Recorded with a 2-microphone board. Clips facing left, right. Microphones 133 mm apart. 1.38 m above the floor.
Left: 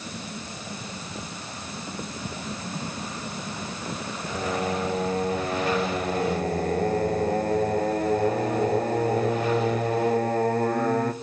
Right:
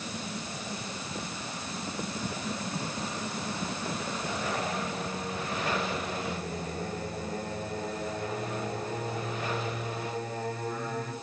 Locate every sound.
4.3 s singing: 65° left (ahead or behind), 0.9 m